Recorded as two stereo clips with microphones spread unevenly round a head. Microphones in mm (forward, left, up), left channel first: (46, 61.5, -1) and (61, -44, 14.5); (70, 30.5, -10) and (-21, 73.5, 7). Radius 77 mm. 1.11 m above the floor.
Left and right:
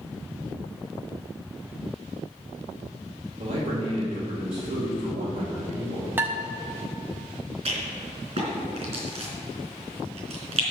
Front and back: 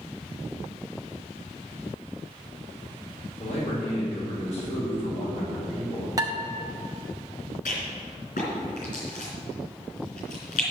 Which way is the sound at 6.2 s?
150° right.